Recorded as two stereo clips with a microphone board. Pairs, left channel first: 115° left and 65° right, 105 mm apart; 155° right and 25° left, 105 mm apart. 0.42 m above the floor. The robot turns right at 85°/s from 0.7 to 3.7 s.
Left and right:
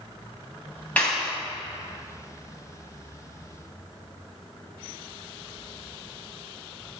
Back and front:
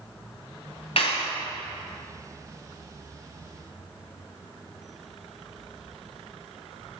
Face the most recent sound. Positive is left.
turn(degrees=60)